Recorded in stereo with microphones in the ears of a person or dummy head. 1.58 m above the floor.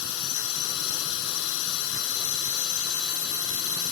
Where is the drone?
80° left.